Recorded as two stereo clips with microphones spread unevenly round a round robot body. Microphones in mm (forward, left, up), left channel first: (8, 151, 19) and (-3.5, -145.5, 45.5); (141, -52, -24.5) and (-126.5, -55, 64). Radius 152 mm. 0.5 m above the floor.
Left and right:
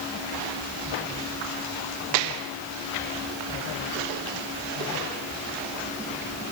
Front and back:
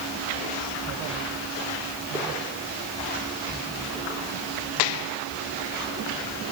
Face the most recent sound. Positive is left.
No sound to turn to.